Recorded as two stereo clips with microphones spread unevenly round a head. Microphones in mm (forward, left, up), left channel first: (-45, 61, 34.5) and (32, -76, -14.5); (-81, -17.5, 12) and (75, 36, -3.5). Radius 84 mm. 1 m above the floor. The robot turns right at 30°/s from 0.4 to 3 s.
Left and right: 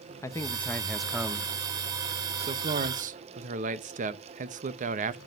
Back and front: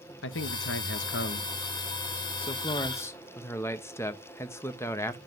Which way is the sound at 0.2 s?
160° right.